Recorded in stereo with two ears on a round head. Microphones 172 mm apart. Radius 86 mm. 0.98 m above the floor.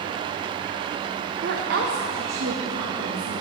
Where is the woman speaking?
45° right (ahead or behind), 0.6 m; by 3.3 s 75° right (ahead or behind), 1.3 m.